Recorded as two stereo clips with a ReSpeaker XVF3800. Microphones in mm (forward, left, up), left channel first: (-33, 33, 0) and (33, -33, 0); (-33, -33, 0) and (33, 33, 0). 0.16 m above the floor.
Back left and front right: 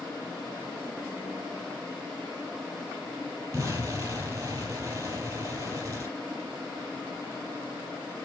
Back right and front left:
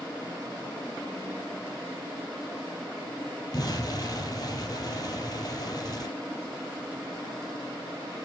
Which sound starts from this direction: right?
An explosion, at 3.5 s.